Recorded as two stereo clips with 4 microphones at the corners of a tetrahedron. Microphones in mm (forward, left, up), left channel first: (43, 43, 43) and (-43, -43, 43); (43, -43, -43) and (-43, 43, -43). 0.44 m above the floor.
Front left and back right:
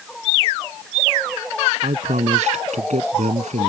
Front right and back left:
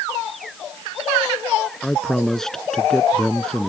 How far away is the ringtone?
No ringtone in this recording.